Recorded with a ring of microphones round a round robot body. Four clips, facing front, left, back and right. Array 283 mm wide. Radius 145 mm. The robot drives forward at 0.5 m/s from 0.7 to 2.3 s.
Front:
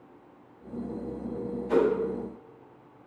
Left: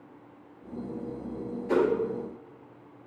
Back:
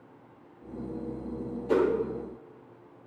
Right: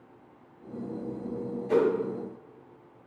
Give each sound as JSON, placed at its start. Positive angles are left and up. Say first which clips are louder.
{"t": 1.7, "sound": "a whoosh", "louder": "even, front 1 dB", "azimuth_deg": 145, "distance_m": 1.0}